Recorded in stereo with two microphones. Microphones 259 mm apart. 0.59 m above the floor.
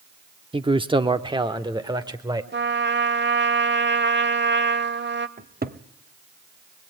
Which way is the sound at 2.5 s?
45° right (ahead or behind).